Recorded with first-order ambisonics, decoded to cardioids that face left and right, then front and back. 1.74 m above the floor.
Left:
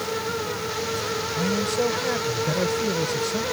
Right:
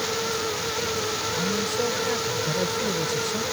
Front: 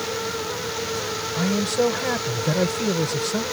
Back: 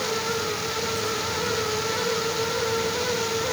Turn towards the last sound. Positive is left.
turn(degrees=10)